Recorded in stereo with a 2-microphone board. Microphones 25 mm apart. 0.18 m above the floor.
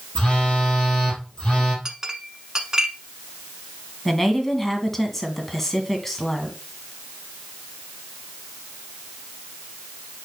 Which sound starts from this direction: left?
A phone buzzing, at 0.1 s.